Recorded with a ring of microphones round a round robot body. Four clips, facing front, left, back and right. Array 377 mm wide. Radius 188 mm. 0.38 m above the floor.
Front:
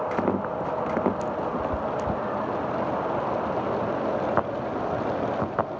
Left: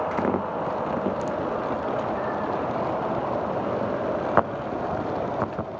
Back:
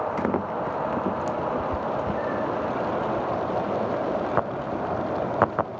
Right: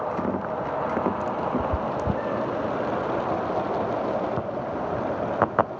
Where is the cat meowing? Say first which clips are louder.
Even, back 1 dB; 85° right, 1.1 m.